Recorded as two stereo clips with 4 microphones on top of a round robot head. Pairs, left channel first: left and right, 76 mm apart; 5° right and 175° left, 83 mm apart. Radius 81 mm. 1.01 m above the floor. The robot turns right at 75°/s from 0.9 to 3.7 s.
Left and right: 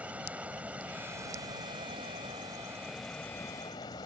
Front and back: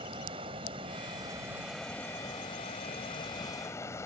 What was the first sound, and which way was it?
Running water, 160° right.